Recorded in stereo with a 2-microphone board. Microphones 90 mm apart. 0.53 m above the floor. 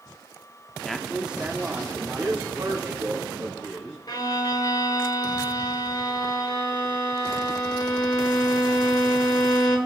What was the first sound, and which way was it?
A man speaking, 10° left (ahead or behind).